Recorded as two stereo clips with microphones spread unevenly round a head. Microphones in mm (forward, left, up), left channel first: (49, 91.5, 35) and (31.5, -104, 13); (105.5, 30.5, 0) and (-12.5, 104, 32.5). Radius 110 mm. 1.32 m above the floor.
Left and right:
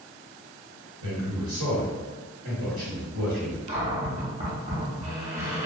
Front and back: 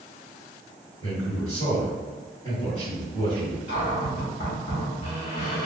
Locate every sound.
1.0 s a man speaking: 105° right, 1.5 m
3.7 s a cupboard door: 45° right, 1.0 m